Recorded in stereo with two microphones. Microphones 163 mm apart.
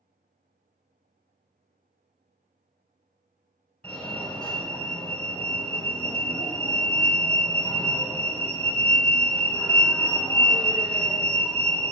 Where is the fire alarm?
5° left (ahead or behind), 2.5 m.